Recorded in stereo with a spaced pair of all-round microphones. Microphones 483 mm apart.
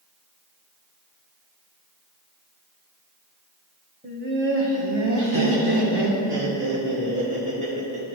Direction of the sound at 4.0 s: 15° right (ahead or behind).